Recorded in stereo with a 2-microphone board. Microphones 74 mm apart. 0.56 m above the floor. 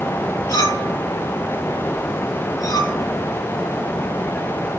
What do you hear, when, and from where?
0.5 s a clink: 55° left (ahead or behind), 3.5 m